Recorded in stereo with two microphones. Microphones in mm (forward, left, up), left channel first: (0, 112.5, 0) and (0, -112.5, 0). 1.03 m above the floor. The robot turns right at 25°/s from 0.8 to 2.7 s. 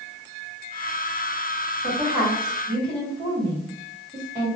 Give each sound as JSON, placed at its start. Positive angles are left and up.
{"t": 1.8, "sound": "a woman speaking", "side_deg": 5, "distance_m": 1.8}